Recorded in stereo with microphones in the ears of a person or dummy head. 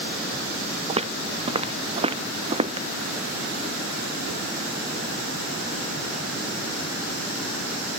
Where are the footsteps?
35° right (ahead or behind); by 2.9 s 30° right (ahead or behind).